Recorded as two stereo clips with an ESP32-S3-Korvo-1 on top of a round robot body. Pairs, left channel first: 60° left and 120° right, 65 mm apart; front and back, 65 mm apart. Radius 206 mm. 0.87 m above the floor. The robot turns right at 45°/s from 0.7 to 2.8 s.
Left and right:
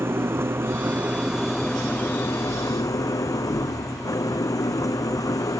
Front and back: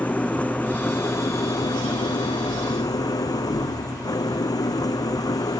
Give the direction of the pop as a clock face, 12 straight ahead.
I don't hear a pop.